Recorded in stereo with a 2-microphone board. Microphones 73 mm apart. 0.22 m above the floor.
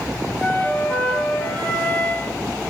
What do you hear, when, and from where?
0.4 s a flute: 15° left (ahead or behind), 0.5 m